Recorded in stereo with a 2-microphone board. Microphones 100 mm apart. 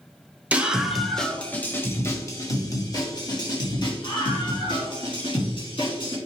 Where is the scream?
15° right (ahead or behind), 1.3 m; by 6.2 s 55° left (ahead or behind), 4 m.